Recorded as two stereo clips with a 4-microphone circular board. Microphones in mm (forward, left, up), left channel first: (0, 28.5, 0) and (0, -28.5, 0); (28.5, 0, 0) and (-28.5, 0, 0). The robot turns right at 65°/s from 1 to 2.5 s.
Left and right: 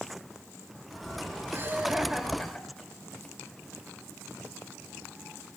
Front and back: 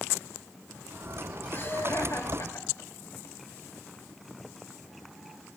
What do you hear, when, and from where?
1.5 s laughter: 50° right, 3 m; by 3.3 s 15° left, 3 m